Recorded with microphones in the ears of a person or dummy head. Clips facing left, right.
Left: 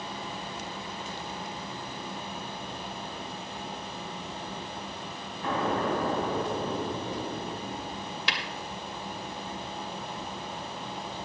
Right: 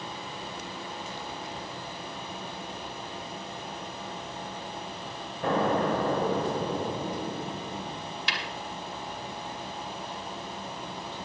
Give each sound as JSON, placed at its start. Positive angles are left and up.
{"t": 5.4, "sound": "an explosion", "side_deg": -50, "distance_m": 1.7}
{"t": 8.3, "sound": "tapping", "side_deg": 70, "distance_m": 2.0}